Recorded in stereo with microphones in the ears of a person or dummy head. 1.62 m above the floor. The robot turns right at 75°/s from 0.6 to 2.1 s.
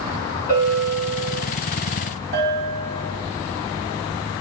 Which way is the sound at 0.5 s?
165° left.